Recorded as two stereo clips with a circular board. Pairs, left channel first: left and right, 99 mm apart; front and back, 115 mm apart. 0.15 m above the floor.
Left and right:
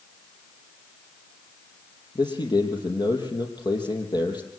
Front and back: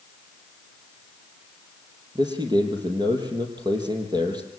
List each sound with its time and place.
2.1 s a man speaking: 130° left, 4.5 m